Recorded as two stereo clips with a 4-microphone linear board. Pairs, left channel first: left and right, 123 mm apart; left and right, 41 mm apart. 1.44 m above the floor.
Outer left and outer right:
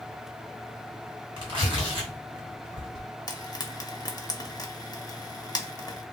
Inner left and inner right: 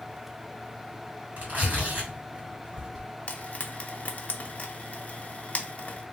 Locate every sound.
1.4 s tearing paper: 45° right (ahead or behind), 2 m
3.3 s frying: 35° left (ahead or behind), 0.6 m